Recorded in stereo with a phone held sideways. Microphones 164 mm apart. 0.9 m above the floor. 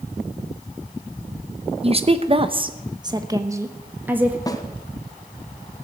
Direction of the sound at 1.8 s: 40° right (ahead or behind).